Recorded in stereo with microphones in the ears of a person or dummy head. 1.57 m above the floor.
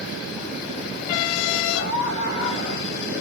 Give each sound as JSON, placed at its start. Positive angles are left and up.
{"t": 1.7, "sound": "a scream", "side_deg": 65, "distance_m": 4.0}